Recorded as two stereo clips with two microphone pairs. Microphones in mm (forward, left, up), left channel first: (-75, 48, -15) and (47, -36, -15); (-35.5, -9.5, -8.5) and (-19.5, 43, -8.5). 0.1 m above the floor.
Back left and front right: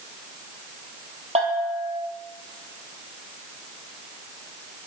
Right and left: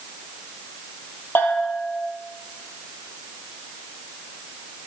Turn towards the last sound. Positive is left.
turn(degrees=-65)